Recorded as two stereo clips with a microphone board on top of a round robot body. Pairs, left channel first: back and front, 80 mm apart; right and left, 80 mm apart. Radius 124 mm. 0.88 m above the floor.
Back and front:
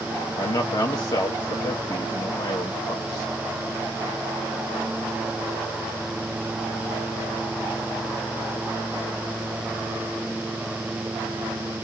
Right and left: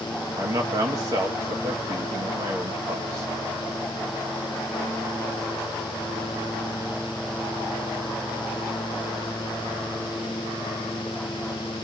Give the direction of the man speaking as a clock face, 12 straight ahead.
7 o'clock.